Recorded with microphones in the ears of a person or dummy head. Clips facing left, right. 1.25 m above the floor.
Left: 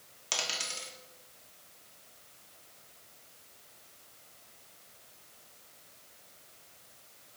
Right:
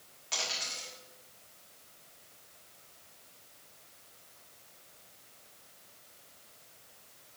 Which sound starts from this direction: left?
A dropped coin, at 0.3 s.